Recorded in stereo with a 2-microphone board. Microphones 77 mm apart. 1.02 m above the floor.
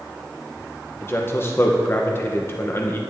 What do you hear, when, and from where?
1.0 s a man speaking: 30° left (ahead or behind), 0.7 m